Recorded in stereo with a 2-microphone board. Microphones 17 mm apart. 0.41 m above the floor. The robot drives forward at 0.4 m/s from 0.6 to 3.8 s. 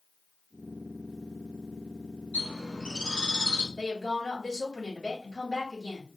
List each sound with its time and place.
2.3 s a bird: 80° left, 2 m; by 3.7 s 70° left (ahead or behind), 2 m
3.8 s a woman speaking: 40° left (ahead or behind), 2.5 m